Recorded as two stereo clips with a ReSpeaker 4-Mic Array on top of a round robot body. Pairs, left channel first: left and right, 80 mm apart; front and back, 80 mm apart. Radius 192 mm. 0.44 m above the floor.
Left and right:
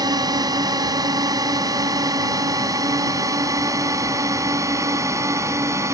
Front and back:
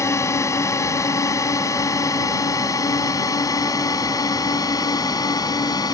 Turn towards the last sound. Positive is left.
turn(degrees=-40)